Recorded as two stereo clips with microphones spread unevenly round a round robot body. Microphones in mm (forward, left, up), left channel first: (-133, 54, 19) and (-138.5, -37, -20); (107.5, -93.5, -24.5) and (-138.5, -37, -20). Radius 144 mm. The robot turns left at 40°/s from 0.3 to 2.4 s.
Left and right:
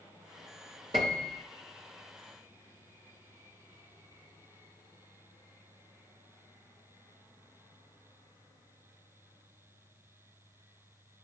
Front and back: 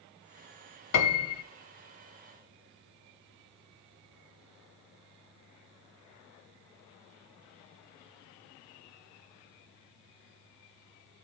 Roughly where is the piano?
Ahead right.